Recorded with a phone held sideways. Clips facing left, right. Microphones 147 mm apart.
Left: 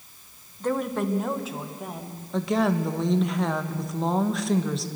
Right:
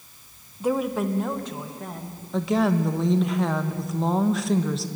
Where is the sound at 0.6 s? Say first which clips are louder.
Right 2 dB; 10° right (ahead or behind), 1.1 m; by 2.2 s 10° left (ahead or behind), 2.5 m.